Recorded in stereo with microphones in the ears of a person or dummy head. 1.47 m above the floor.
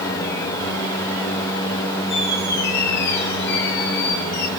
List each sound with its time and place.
2.1 s a squeak: 65° left (ahead or behind), 3 m